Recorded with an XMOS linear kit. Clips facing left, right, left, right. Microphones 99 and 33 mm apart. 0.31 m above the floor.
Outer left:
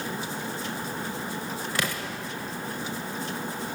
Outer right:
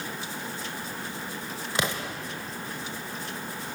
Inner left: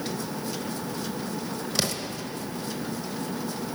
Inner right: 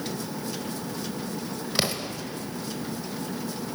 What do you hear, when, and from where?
1.8 s an explosion: 20° right (ahead or behind), 0.7 m